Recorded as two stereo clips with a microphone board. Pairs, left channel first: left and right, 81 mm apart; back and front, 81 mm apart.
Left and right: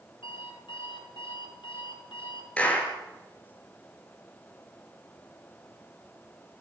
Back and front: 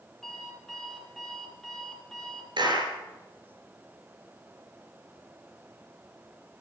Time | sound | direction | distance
0.2 | an alarm clock | 90° left | 4.5 m
2.6 | a clap | 15° left | 4 m